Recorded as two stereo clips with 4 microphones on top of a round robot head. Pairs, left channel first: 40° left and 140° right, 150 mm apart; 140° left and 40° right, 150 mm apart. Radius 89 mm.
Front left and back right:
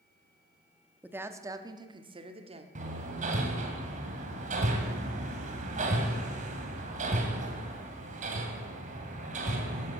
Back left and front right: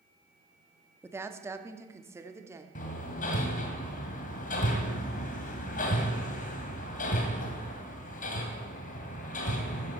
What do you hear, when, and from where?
1.0 s a woman speaking: 80° right, 1.0 m; by 2.6 s 105° right, 1.5 m
2.8 s hammering: 175° left, 2 m